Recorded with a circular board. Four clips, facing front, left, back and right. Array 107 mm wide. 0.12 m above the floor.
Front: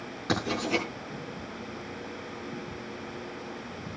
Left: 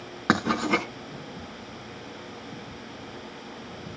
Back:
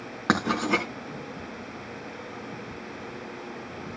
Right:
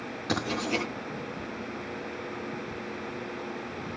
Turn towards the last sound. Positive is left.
turn(degrees=135)